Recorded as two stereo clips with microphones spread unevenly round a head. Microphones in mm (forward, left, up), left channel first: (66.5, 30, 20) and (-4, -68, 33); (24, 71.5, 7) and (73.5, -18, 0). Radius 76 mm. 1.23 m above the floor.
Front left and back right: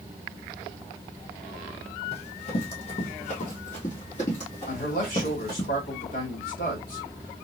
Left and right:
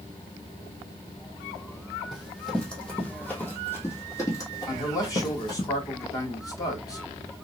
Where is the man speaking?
60° left, 1.7 m.